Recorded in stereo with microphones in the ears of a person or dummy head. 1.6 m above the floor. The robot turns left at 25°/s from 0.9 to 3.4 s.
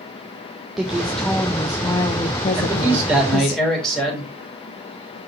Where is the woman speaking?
175° right, 0.8 m; by 3.6 s 120° left, 0.8 m.